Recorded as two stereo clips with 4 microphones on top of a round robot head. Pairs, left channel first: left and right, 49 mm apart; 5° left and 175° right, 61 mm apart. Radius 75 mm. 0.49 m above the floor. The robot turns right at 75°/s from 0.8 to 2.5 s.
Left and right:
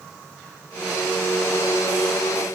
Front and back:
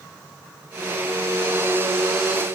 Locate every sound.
Only background noise.